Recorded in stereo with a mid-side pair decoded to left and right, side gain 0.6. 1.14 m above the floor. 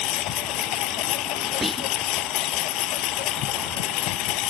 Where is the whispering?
5° right.